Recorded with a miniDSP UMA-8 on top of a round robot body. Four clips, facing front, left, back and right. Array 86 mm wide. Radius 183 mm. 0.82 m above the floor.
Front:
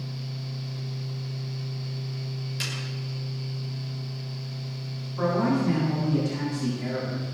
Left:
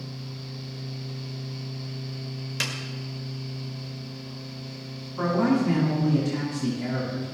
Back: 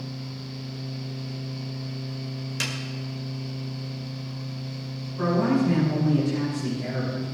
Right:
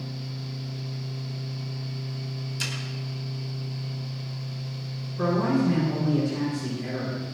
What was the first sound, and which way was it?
A snare drum, 115° left.